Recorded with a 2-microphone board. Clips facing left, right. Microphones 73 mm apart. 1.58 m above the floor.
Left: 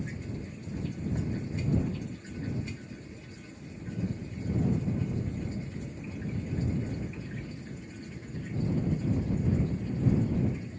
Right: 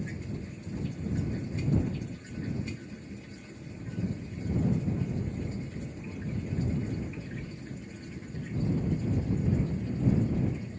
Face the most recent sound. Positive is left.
turn(degrees=55)  # may be behind; listen again after turning